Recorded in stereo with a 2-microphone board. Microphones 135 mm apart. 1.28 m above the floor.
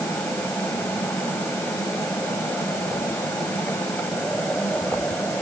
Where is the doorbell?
No doorbell in this recording.